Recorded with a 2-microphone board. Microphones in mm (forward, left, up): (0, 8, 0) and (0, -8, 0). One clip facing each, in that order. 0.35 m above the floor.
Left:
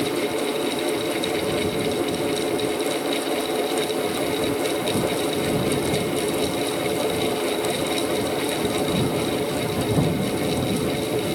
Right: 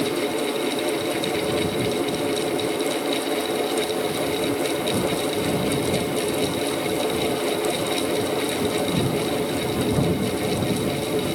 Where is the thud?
I don't hear a thud.